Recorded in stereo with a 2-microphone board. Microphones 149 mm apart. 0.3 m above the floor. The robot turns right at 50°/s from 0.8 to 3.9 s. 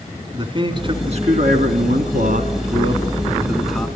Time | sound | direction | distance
0.3 | a man speaking | 145° right | 3 m